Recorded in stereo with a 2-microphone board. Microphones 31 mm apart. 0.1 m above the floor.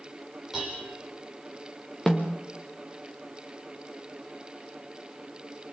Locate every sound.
0.5 s dishes clattering: 5° right (ahead or behind), 7.5 m
2.1 s a snare drum: 10° left (ahead or behind), 3.5 m